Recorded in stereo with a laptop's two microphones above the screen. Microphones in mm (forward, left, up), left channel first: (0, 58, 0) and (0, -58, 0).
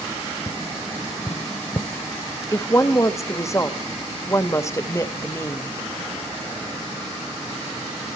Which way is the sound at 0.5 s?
35° left (ahead or behind).